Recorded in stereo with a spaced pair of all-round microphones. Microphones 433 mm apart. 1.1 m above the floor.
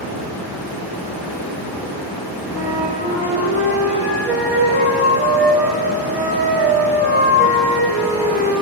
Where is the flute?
25° right (ahead or behind), 1.3 m.